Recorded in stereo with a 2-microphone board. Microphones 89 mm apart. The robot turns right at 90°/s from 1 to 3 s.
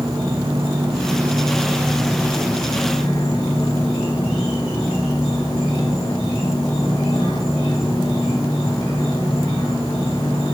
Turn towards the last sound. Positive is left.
turn(degrees=80)